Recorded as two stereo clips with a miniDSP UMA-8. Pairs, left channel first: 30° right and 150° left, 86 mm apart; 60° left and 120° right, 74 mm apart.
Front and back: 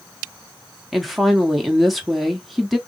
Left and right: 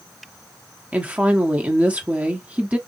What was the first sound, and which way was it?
A woman speaking, 120° right.